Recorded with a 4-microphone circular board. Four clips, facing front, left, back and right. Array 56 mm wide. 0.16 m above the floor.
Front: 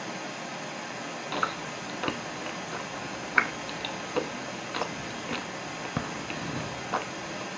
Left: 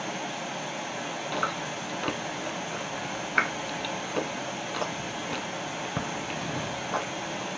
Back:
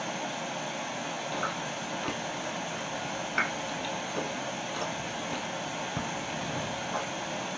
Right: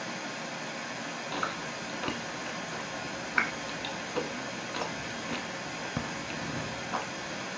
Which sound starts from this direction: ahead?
Chewing, at 1.3 s.